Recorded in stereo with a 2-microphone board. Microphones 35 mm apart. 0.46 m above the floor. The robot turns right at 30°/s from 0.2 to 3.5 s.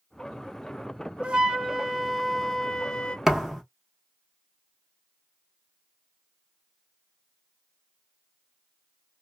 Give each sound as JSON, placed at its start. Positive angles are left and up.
{"t": 1.2, "sound": "a flute", "azimuth_deg": -35, "distance_m": 0.7}
{"t": 3.3, "sound": "a thud", "side_deg": -10, "distance_m": 1.3}